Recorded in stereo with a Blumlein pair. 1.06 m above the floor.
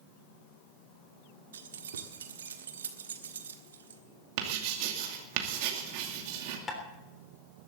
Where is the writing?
45° right, 2.5 m.